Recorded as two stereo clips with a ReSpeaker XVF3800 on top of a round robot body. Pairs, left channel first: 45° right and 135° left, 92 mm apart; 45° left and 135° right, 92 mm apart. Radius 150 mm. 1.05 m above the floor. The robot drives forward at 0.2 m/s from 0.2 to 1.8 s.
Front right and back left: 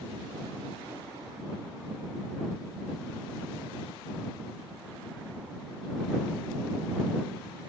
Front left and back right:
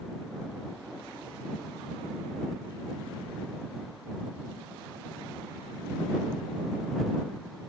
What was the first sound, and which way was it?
Only background noise.